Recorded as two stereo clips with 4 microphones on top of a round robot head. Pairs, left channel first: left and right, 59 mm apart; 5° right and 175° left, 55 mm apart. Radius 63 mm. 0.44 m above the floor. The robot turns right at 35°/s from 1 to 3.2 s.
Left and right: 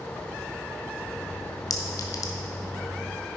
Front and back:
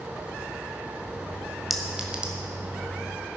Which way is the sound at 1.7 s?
90° left.